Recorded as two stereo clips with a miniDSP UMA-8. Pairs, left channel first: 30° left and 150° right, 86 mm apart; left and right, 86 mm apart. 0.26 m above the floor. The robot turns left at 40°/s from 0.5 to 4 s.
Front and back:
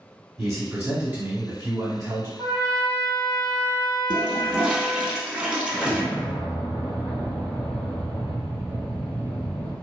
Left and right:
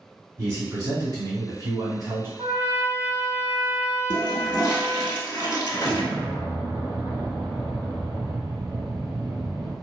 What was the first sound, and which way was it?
A man speaking, 60° right.